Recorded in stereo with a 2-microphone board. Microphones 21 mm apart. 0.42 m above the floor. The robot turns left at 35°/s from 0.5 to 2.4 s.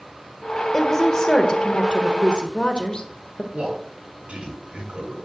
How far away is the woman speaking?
About 1.2 m.